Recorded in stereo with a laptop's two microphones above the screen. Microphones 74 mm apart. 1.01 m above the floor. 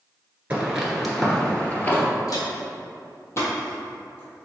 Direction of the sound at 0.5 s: 20° right (ahead or behind).